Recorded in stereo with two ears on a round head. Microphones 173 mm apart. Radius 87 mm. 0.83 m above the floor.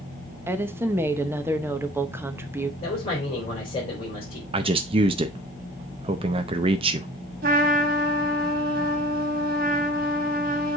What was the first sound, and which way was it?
A woman speaking, 10° right (ahead or behind).